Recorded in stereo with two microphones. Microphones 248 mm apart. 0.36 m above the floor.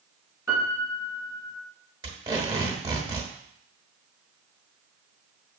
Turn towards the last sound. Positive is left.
turn(degrees=-15)  # may be behind; listen again after turning